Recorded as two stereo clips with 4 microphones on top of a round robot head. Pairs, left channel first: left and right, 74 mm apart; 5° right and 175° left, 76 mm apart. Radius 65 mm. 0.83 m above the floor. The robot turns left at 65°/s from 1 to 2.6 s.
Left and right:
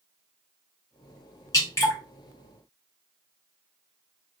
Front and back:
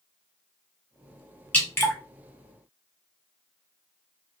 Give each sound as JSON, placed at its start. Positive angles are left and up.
{"t": 1.5, "sound": "dripping", "azimuth_deg": 65, "distance_m": 1.3}